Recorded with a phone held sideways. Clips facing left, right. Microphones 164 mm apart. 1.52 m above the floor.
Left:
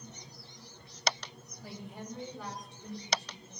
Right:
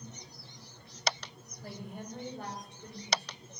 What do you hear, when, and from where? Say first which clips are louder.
1.6 s a woman speaking: right 1 dB; 55° right (ahead or behind), 6 m